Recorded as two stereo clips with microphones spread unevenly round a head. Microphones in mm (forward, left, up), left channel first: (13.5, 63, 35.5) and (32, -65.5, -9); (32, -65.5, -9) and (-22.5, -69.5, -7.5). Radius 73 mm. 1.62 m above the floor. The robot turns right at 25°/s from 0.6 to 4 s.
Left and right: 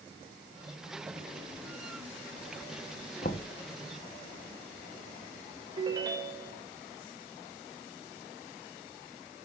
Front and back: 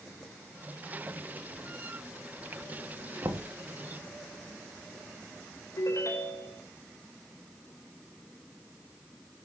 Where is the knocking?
135° left, 1.2 m; by 3.5 s 140° left, 1.2 m.